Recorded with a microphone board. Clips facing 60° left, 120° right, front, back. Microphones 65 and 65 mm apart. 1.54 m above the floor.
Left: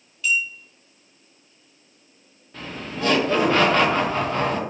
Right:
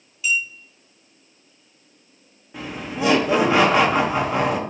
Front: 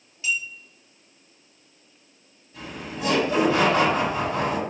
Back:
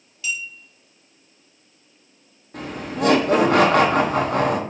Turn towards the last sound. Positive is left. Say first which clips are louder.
# right 3 dB, back 7 dB
turn(degrees=165)